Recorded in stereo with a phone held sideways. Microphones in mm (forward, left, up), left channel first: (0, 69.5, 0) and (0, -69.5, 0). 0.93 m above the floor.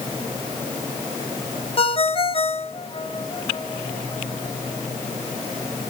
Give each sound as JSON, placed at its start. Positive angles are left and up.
{"t": 1.8, "sound": "a ringtone", "side_deg": 40, "distance_m": 0.8}